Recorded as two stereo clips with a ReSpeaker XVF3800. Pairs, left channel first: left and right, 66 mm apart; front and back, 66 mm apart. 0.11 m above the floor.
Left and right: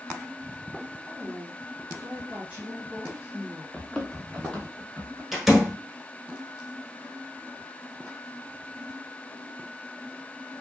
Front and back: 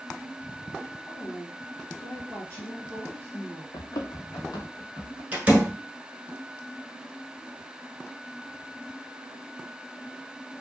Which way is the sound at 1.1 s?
20° right.